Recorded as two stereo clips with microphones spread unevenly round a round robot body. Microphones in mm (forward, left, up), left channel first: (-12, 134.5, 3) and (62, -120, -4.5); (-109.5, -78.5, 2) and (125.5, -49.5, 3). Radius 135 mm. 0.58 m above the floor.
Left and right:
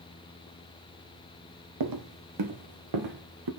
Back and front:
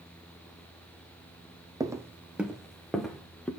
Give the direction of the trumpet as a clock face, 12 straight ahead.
I don't hear a trumpet.